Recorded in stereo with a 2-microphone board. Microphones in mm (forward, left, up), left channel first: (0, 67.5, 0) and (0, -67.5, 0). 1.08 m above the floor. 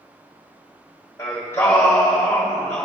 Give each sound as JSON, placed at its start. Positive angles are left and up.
{"t": 1.2, "sound": "singing", "side_deg": 20, "distance_m": 1.7}